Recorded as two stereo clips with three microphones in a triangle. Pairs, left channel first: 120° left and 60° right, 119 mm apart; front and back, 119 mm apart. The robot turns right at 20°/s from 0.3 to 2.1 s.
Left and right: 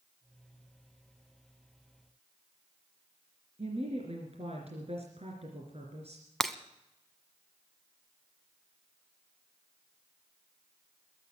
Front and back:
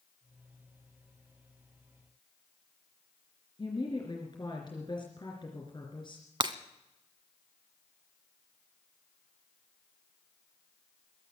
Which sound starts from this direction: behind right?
Breaking glass, at 6.4 s.